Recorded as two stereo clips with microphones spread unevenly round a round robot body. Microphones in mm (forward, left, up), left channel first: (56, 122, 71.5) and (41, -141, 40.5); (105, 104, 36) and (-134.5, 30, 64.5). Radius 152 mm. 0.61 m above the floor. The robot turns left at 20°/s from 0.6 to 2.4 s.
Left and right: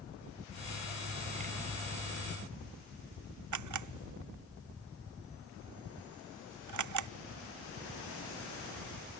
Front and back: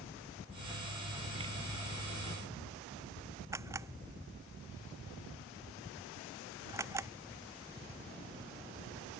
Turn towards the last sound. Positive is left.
turn(degrees=-80)